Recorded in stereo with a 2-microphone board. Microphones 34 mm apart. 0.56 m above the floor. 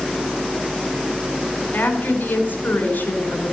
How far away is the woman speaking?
About 4 m.